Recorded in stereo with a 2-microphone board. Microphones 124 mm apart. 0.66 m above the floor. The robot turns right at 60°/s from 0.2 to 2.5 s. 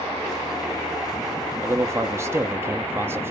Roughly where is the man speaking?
Right.